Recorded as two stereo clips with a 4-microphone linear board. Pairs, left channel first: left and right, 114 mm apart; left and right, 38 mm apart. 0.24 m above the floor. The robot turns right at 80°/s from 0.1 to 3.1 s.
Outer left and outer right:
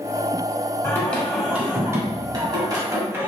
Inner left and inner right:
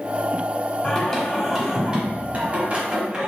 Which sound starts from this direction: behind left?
Singing, at 0.8 s.